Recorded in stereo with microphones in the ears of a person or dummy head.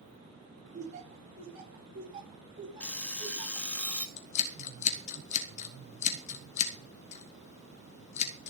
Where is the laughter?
40° right (ahead or behind), 3.5 m; by 3.7 s 15° right (ahead or behind), 4 m.